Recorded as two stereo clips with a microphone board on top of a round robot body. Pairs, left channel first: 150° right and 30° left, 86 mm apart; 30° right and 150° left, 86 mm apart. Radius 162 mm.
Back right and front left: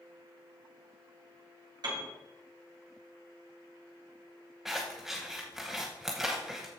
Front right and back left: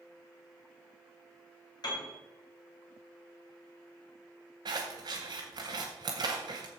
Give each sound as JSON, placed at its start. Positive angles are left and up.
{"t": 1.8, "sound": "a piano", "azimuth_deg": 0, "distance_m": 3.0}
{"t": 4.7, "sound": "scissors", "azimuth_deg": 115, "distance_m": 0.6}